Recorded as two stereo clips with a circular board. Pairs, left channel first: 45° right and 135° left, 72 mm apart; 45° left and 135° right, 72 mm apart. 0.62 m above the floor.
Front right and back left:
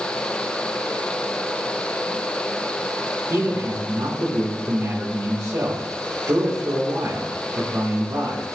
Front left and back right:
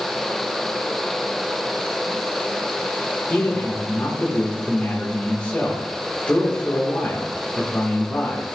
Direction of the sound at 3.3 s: 110° left.